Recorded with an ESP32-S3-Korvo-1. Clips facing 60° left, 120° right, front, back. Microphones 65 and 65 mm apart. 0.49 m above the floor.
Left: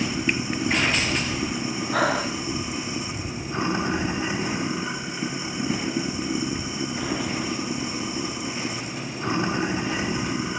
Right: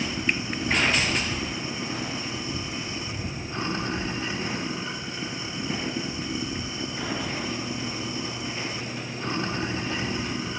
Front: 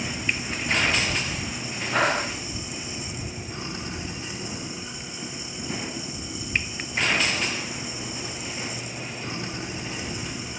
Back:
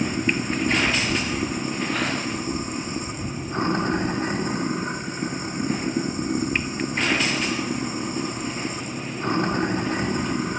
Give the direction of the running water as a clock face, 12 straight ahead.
8 o'clock.